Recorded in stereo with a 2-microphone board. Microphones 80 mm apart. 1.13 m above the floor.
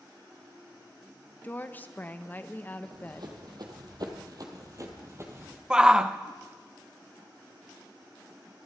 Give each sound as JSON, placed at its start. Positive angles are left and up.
{"t": 1.4, "sound": "a woman speaking", "side_deg": 25, "distance_m": 0.8}
{"t": 2.8, "sound": "running footsteps", "side_deg": -60, "distance_m": 2.5}
{"t": 5.7, "sound": "a shout", "side_deg": -10, "distance_m": 0.6}